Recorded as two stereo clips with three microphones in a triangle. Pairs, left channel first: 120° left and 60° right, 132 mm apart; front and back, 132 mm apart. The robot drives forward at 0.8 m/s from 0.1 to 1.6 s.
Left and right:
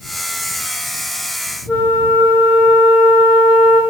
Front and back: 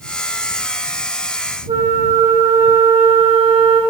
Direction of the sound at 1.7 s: 160° right.